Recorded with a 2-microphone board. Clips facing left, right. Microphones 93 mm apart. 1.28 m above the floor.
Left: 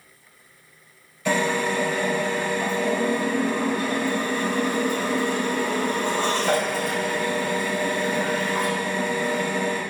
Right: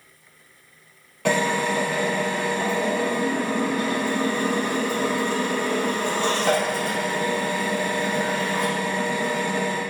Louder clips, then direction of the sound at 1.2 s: Right 1 dB; 70° right (ahead or behind).